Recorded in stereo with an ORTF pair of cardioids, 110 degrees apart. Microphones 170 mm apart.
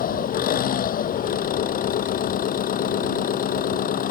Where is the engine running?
60° left.